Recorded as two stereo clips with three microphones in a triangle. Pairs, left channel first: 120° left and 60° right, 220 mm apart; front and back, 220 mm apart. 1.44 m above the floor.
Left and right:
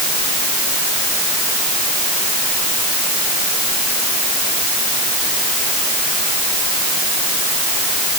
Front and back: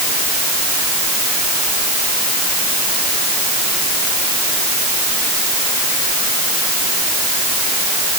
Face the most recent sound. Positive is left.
No sound to turn to.